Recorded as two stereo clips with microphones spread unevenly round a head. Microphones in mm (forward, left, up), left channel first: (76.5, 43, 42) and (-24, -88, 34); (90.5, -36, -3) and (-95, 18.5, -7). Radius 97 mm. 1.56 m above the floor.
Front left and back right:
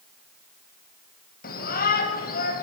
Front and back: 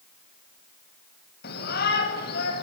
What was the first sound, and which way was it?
A shout, 25° left.